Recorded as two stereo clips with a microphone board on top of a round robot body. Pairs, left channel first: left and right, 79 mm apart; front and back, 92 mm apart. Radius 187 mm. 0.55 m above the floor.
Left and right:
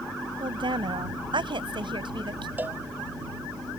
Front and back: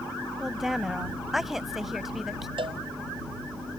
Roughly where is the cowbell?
Behind right.